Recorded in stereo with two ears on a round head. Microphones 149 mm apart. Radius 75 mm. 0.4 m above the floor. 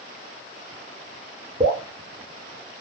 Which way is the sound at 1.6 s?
35° right (ahead or behind).